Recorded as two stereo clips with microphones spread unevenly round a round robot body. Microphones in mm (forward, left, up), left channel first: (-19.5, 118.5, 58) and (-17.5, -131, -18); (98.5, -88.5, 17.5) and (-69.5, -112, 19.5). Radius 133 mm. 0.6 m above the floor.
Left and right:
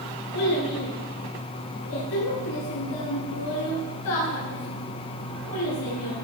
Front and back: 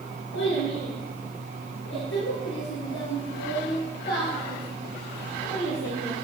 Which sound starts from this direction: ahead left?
A child speaking, at 0.3 s.